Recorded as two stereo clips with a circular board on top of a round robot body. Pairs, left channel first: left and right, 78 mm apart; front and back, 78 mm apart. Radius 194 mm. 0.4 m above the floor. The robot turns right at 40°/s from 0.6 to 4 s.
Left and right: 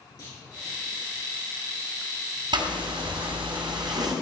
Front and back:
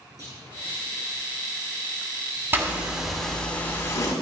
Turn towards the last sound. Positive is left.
turn(degrees=-55)